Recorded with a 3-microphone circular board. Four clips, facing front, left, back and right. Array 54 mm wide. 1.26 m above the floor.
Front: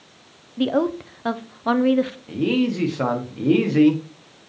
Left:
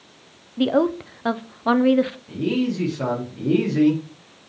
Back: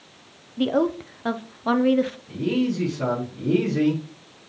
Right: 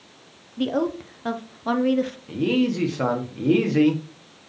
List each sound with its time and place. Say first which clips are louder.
0.6 s a woman speaking: left 5 dB, front 1 dB; 75° left, 0.5 m
2.3 s a man speaking: right 1 dB, front 3 dB; 35° right, 1.8 m